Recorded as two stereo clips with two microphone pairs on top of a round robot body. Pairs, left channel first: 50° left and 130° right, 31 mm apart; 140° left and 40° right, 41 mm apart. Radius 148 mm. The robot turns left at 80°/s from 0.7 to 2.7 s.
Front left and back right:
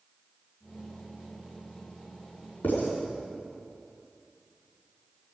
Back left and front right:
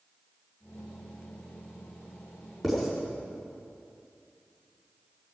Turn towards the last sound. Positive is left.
turn(degrees=45)